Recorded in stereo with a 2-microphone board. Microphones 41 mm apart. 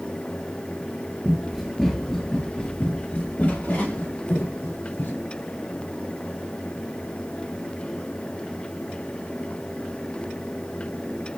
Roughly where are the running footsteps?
Centre.